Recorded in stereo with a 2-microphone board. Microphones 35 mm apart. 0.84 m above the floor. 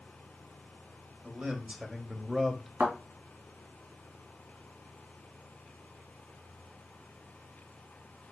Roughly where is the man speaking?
Right.